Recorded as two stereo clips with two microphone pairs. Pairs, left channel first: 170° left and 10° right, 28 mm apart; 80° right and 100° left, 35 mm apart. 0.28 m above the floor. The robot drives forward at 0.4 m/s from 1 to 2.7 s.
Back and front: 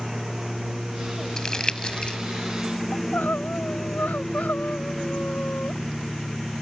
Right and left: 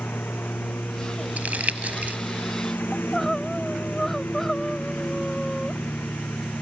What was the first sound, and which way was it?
A lawn mower, 90° right.